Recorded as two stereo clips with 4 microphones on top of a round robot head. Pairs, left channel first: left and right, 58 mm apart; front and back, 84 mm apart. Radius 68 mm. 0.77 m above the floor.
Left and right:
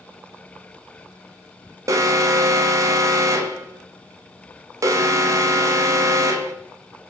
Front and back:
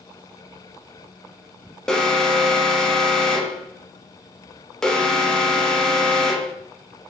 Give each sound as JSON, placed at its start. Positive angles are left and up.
{"t": 1.9, "sound": "an alarm", "azimuth_deg": -80, "distance_m": 1.0}